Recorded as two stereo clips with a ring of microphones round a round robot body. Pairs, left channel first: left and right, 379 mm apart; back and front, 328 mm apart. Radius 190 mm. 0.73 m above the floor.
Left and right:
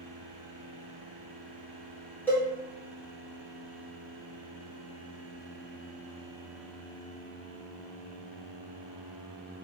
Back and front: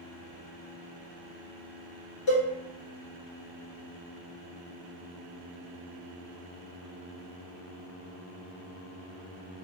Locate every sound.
2.3 s a cowbell: 175° left, 1.4 m